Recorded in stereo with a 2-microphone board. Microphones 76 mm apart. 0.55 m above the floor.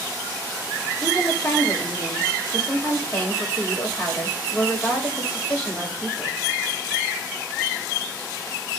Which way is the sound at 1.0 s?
40° left (ahead or behind).